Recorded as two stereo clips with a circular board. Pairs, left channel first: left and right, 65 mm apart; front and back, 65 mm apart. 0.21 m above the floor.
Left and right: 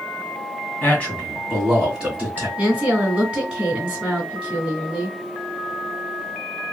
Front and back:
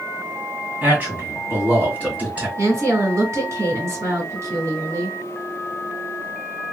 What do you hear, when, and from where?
0.8 s a man speaking: 135° left, 1.9 m; by 2.5 s 130° right, 1.8 m
2.6 s a woman speaking: 160° right, 2 m